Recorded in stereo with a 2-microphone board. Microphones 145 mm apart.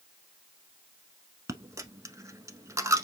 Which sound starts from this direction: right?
A dropped coin, at 1.5 s.